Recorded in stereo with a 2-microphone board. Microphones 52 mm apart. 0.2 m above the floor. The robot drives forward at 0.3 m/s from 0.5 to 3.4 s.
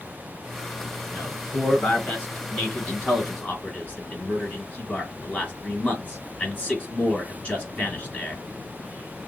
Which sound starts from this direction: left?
A man speaking, at 1.1 s.